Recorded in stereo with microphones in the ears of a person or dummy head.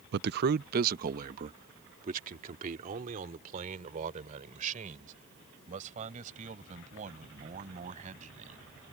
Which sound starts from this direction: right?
A man speaking, at 0.1 s.